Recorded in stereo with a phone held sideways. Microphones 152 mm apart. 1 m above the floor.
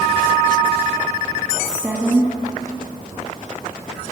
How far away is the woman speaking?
About 1.5 m.